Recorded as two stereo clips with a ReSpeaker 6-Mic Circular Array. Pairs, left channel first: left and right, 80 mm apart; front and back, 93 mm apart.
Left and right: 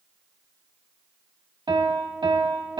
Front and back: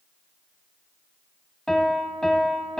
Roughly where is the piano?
Right.